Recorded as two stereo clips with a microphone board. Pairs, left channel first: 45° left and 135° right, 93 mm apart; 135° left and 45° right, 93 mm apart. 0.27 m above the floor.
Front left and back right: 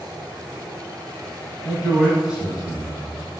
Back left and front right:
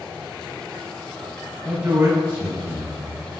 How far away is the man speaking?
About 1.1 m.